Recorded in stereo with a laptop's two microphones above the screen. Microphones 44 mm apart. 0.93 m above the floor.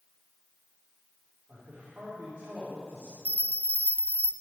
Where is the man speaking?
25° right (ahead or behind), 3 m.